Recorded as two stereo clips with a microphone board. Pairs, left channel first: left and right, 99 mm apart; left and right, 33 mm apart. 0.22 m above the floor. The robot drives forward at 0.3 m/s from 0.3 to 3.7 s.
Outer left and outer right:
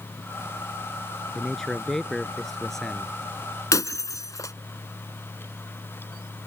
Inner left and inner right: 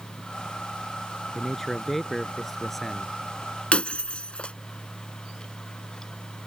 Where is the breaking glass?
35° left (ahead or behind).